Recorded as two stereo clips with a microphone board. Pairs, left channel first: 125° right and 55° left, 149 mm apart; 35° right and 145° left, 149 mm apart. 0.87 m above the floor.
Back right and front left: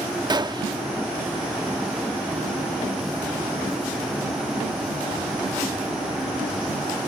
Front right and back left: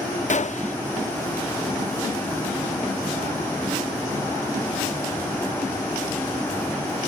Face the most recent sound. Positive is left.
turn(degrees=-5)